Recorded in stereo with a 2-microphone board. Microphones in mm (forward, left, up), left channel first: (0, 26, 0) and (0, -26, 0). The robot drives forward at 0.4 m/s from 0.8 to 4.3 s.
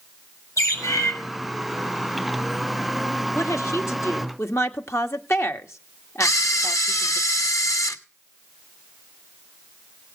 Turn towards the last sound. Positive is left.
turn(degrees=75)  # may be behind; listen again after turning